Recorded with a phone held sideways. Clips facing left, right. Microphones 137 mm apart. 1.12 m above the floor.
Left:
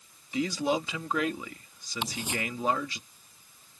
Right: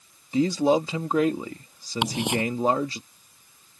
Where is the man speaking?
35° right (ahead or behind).